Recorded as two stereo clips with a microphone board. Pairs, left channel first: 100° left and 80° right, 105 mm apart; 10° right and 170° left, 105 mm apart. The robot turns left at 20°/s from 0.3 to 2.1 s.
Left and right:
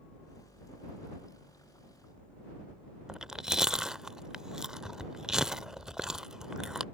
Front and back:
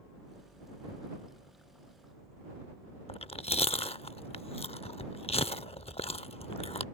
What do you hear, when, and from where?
3.1 s chewing: 5° left